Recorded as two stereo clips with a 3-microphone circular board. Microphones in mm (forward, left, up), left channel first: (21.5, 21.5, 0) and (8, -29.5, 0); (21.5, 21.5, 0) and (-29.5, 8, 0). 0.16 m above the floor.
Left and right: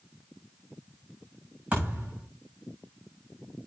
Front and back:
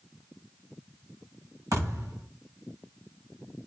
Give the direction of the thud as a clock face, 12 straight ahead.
6 o'clock.